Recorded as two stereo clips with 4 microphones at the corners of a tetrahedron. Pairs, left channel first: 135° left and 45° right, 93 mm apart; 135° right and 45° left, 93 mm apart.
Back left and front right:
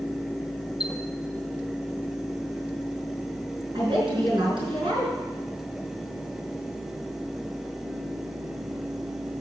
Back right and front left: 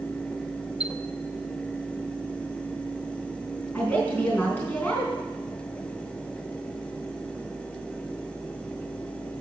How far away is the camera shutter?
I don't hear a camera shutter.